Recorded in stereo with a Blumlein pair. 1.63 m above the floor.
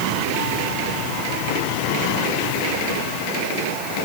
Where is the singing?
No singing in this recording.